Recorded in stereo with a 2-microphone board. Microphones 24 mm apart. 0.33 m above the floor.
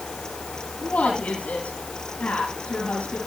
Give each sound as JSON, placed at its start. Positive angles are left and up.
{"t": 0.8, "sound": "a woman speaking", "side_deg": 70, "distance_m": 6.5}